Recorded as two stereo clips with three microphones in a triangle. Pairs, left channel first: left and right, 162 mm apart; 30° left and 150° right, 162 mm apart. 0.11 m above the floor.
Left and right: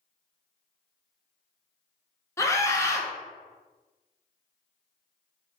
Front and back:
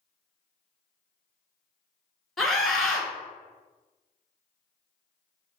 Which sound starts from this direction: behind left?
A scream, at 2.4 s.